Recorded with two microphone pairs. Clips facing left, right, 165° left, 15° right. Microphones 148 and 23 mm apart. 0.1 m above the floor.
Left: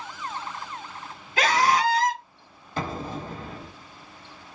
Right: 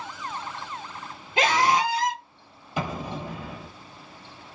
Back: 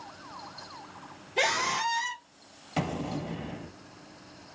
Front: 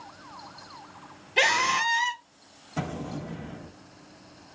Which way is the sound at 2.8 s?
165° right.